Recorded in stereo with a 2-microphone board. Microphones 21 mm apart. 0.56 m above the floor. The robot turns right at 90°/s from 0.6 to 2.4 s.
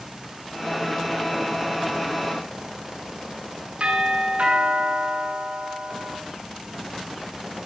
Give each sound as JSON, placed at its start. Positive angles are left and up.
{"t": 3.8, "sound": "a doorbell", "side_deg": -75, "distance_m": 8.5}